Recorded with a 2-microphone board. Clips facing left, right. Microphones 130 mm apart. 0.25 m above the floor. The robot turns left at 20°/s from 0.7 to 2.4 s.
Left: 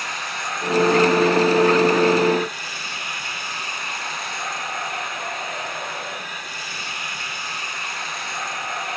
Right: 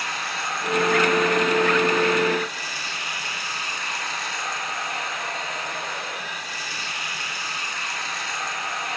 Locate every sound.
0.0 s running water: 160° left, 4.5 m; by 9.0 s 130° left, 4.5 m